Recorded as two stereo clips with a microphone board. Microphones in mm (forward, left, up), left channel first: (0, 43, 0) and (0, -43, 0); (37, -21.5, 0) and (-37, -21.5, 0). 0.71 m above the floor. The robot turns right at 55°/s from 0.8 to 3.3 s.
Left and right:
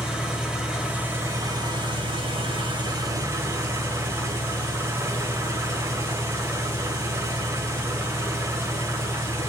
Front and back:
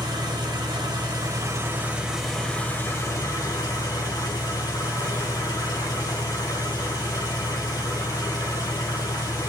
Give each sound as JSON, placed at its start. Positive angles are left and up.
{"t": 0.0, "sound": "an engine running", "azimuth_deg": -170, "distance_m": 2.5}